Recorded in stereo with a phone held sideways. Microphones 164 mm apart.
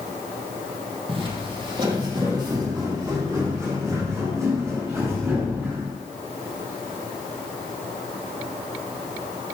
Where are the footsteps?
35° right (ahead or behind), 2.5 m; by 5.9 s 20° right (ahead or behind), 6.5 m.